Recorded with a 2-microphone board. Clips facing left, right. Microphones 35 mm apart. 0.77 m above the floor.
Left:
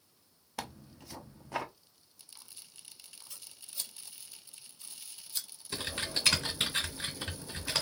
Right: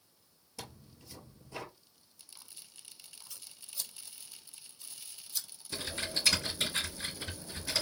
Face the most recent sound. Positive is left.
turn(degrees=50)  # may be behind; listen again after turning